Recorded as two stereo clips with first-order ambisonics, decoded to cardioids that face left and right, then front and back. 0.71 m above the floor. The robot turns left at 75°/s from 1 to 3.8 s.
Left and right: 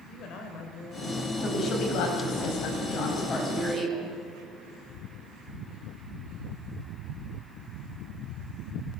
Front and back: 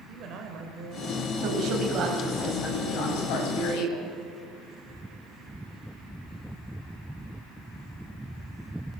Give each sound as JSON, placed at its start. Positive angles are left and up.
{"t": 0.1, "sound": "a woman speaking", "azimuth_deg": 135, "distance_m": 3.0}
{"t": 1.4, "sound": "a woman speaking", "azimuth_deg": 155, "distance_m": 5.0}